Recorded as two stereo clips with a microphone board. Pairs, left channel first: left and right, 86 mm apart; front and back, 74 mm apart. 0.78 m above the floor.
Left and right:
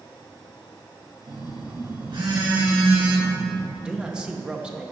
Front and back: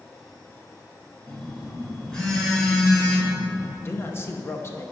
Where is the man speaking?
20° right, 0.9 m.